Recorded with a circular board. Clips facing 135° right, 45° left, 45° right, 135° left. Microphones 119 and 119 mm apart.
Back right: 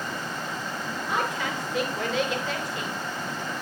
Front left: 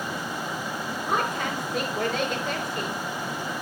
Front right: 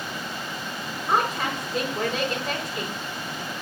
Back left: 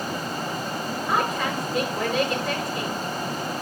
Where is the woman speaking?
10° left, 5 m.